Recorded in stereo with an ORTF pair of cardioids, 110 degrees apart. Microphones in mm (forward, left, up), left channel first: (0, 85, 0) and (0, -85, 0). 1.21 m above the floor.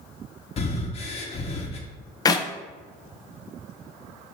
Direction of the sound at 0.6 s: 40° left.